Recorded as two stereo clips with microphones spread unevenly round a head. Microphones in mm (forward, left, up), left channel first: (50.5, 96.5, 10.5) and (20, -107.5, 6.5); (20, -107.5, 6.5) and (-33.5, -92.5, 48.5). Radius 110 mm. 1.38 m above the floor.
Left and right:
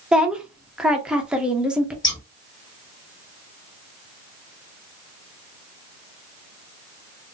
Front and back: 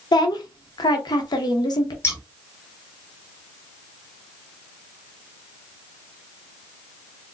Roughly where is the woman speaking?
Ahead.